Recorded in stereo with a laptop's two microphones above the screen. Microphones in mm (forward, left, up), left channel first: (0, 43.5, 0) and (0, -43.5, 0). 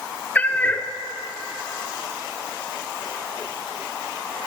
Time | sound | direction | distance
0.3 | a cat meowing | 20° left (ahead or behind) | 0.6 m